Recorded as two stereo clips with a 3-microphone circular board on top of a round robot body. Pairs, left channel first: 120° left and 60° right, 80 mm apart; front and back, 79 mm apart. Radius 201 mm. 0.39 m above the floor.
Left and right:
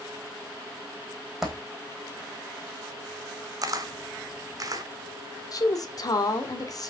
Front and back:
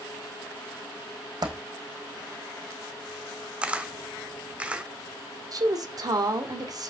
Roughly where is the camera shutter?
Right.